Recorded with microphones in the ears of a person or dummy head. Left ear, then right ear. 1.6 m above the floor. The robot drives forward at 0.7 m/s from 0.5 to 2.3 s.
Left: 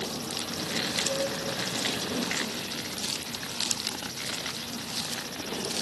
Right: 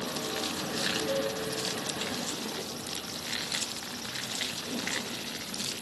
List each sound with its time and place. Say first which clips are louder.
1.1 s a cowbell: left 1 dB; 85° right, 4 m; by 1.3 s 90° right, 4 m